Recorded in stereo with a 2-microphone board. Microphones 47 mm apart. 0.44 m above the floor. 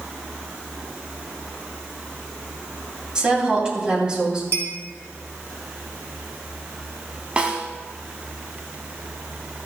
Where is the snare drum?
20° right (ahead or behind), 1.2 m.